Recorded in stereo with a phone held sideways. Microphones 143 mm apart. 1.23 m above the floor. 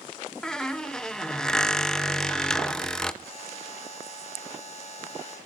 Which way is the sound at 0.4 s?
5° left (ahead or behind).